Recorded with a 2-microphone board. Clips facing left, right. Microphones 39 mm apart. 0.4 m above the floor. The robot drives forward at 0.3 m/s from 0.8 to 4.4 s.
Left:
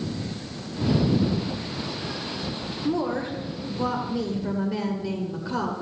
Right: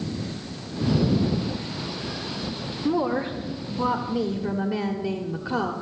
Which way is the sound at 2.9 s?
15° right (ahead or behind).